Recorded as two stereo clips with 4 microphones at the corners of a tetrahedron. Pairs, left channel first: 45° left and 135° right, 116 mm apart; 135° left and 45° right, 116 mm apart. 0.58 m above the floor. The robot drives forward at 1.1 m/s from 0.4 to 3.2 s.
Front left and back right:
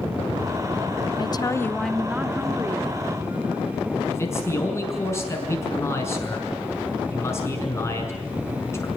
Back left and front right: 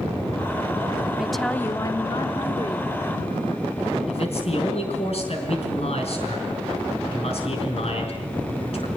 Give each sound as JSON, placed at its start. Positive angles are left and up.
{"t": 1.2, "sound": "a woman speaking", "azimuth_deg": 35, "distance_m": 0.9}
{"t": 4.1, "sound": "a man speaking", "azimuth_deg": 110, "distance_m": 5.5}